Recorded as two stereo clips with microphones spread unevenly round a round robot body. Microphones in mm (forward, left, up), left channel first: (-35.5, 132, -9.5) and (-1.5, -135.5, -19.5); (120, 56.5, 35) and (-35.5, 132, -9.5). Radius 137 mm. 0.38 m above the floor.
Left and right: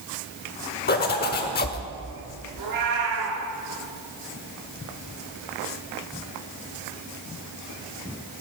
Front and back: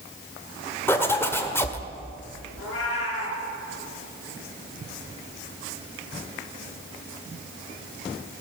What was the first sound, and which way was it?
A zipper, 65° left.